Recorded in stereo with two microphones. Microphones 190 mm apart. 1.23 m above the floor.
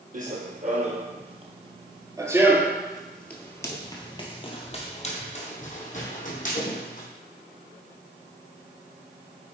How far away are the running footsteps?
About 1.9 m.